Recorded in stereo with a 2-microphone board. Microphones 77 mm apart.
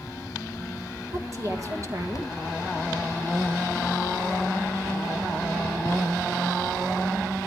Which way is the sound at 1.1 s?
45° right (ahead or behind).